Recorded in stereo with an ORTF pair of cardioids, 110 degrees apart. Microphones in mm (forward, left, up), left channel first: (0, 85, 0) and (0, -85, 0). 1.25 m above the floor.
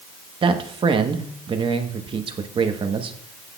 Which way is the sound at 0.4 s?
30° right.